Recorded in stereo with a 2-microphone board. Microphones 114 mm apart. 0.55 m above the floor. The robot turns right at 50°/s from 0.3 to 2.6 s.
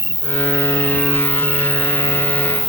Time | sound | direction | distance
0.0 | an insect | 130° left | ?